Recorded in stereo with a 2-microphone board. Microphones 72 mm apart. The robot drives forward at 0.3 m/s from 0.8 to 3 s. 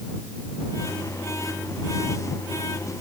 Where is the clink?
I don't hear a clink.